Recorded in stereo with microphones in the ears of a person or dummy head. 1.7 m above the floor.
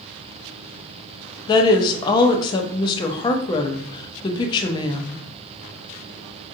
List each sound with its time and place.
1.5 s a woman speaking: 25° left (ahead or behind), 0.5 m